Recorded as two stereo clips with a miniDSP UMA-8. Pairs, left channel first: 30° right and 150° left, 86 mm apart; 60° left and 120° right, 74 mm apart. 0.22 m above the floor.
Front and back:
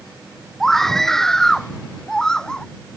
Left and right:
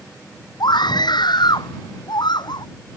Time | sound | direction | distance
0.6 | a scream | 55° left | ?